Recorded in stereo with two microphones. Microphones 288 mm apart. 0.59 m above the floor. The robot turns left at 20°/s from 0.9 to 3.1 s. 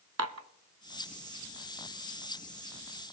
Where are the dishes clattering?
60° right (ahead or behind), 0.6 m.